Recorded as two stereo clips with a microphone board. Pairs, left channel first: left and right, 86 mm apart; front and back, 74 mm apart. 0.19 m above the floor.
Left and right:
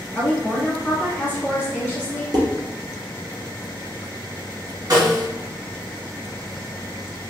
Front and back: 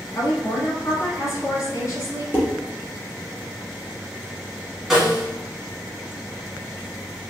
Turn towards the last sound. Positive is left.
turn(degrees=-95)